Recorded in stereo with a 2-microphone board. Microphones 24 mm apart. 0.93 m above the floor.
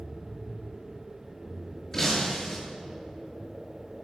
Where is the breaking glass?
20° left (ahead or behind), 9.5 m.